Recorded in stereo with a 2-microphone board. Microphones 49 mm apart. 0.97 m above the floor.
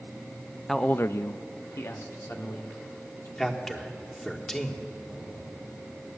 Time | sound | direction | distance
0.7 | a man speaking | 5° left (ahead or behind) | 0.6 m
3.4 | a man speaking | 10° left (ahead or behind) | 1.8 m
5.1 | an explosion | centre (ahead or behind) | 7.5 m